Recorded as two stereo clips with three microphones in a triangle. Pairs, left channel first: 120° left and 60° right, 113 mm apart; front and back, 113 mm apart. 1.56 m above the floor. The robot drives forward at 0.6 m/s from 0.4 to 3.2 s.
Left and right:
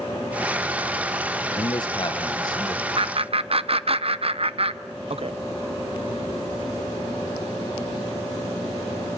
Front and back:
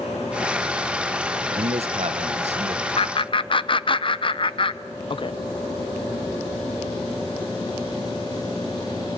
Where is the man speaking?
165° left, 0.7 m; by 2.9 s 175° left, 1.4 m.